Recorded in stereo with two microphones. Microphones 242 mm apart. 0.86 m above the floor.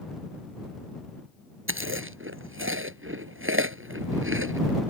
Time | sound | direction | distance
1.7 | chewing | 55° right (ahead or behind) | ?